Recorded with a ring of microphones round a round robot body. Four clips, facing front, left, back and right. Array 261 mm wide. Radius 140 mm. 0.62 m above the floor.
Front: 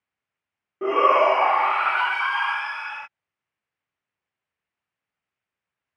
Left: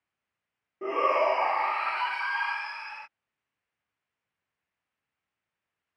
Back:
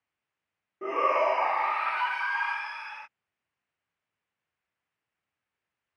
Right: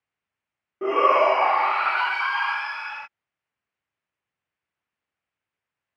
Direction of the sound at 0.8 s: 40° right.